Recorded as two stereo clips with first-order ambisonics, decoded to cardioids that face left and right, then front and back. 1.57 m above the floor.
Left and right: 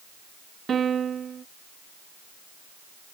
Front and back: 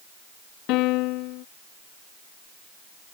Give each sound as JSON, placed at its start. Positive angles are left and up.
{"t": 0.7, "sound": "a piano", "azimuth_deg": -25}